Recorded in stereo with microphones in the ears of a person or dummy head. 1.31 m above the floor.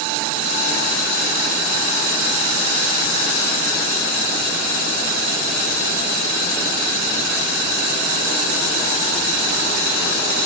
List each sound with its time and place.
Only background noise.